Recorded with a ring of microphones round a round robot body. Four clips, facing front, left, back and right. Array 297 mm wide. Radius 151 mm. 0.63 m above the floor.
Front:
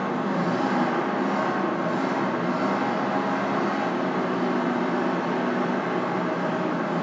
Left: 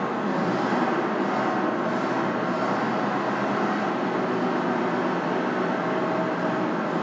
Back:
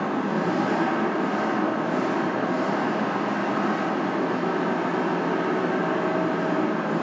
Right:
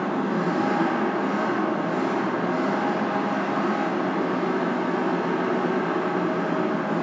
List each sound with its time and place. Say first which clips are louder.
0.0 s an engine running: right 1 dB, back 1 dB; 95° left, 1.9 m